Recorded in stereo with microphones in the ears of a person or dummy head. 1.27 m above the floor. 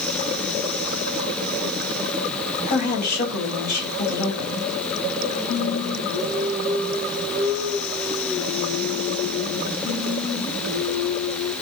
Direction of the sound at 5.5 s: 55° left (ahead or behind).